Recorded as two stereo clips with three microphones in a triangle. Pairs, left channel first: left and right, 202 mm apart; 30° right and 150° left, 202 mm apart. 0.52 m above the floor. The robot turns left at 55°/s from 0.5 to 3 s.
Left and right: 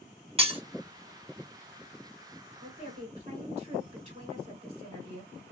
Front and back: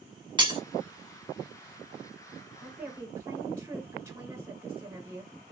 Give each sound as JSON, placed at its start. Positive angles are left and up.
{"t": 0.4, "sound": "breaking glass", "azimuth_deg": -145, "distance_m": 0.9}
{"t": 2.6, "sound": "a woman speaking", "azimuth_deg": -115, "distance_m": 2.0}